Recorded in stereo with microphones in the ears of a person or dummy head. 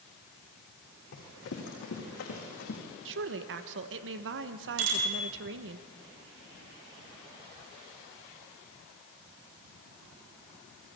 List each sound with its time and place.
1.1 s running footsteps: 65° left (ahead or behind), 7 m; by 2.8 s 55° left (ahead or behind), 6 m
3.0 s a woman speaking: 65° right (ahead or behind), 1.0 m
4.8 s a bicycle bell: 80° right, 7 m